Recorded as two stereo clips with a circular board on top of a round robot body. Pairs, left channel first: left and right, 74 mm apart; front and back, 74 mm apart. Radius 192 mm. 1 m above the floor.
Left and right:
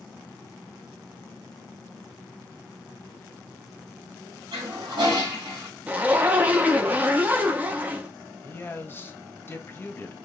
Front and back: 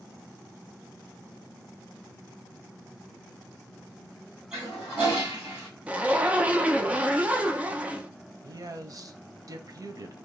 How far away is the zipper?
About 0.8 m.